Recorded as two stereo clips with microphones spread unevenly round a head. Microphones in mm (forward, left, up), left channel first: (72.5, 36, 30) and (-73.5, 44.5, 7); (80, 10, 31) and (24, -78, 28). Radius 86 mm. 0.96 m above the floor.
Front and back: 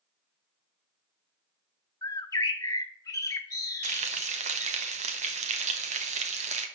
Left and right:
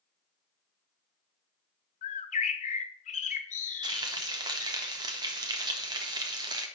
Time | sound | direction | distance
2.0 | a bird | 65° left | 1.2 m
3.8 | frying | 170° right | 1.4 m